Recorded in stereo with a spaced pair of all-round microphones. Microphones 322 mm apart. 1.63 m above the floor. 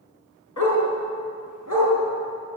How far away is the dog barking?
About 4.5 m.